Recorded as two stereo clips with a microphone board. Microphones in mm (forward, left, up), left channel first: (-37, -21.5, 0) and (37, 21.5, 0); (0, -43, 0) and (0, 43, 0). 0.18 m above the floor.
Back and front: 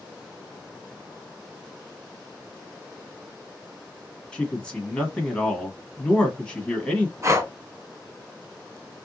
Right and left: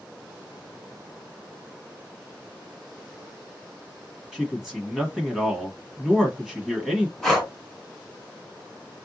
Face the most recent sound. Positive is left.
turn(degrees=-5)